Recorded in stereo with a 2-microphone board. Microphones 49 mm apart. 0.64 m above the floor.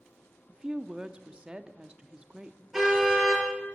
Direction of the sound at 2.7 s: 5° right (ahead or behind).